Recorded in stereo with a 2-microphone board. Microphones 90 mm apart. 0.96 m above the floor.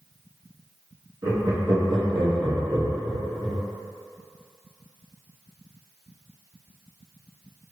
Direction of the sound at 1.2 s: 50° right (ahead or behind).